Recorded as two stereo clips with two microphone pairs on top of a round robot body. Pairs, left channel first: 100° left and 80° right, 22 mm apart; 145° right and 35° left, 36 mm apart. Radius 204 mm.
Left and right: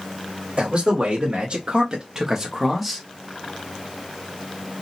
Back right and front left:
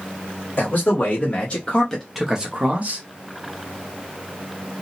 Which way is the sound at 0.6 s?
120° right.